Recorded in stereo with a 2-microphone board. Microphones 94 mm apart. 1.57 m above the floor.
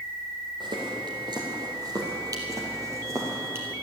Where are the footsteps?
55° right (ahead or behind), 3.5 m; by 3.7 s 25° right (ahead or behind), 3 m.